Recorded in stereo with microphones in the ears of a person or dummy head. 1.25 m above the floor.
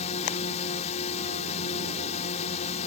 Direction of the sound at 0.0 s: 40° left (ahead or behind).